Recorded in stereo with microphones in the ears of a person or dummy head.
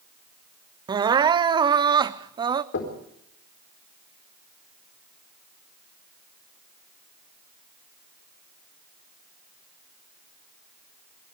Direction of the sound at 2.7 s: 60° left (ahead or behind).